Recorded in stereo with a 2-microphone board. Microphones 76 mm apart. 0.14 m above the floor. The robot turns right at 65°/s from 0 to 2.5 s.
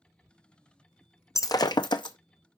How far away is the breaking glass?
About 0.5 m.